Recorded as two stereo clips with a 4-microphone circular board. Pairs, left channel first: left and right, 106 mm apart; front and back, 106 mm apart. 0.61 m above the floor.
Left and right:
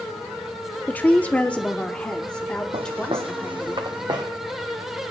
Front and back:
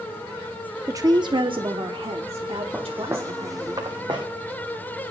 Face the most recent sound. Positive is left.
turn(degrees=-140)